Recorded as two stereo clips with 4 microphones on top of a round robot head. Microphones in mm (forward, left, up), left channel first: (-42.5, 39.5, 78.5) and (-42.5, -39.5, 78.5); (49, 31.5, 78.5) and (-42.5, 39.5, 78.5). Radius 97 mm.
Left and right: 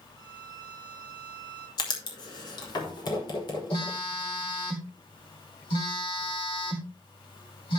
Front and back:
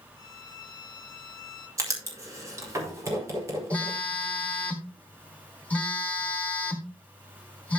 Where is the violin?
30° left, 1.9 m.